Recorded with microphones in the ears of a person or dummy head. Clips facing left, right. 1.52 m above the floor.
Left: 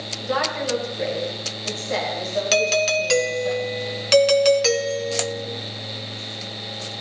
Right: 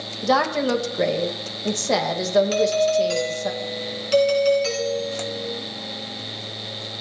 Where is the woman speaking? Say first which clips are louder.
Right 5 dB; 85° right, 2 m.